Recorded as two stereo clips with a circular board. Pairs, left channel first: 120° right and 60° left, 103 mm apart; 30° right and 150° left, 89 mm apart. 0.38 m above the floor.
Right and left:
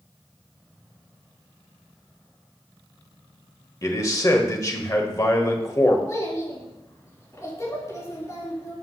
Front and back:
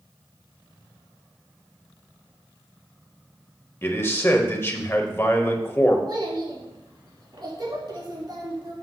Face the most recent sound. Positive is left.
turn(degrees=180)